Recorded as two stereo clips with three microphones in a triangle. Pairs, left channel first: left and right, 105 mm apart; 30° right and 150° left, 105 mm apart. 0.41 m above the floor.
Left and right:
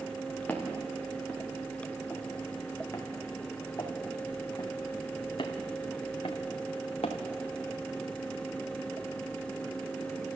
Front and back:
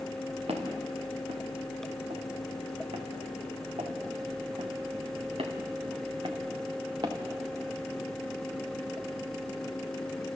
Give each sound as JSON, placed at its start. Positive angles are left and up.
{"t": 0.5, "sound": "footsteps", "azimuth_deg": 165, "distance_m": 4.5}